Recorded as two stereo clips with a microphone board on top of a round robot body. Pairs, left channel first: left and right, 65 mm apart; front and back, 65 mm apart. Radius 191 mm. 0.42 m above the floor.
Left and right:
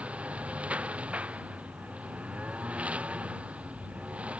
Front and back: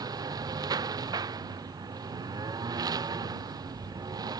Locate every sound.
0.0 s a lawn mower: 165° right